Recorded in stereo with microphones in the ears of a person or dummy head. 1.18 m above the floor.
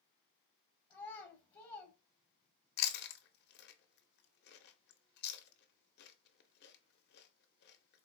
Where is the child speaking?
25° left (ahead or behind), 0.6 m.